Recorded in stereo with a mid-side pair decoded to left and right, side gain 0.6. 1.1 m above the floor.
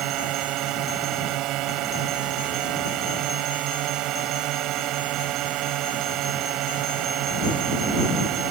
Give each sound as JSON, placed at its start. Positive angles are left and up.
{"t": 0.0, "sound": "a drone", "azimuth_deg": -65}